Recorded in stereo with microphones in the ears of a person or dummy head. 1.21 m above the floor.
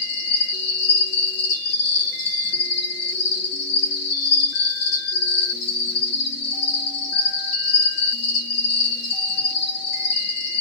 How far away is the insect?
About 0.8 m.